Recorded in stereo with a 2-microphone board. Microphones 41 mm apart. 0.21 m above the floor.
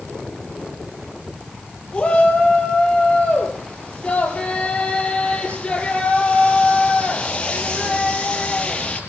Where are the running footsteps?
I don't hear running footsteps.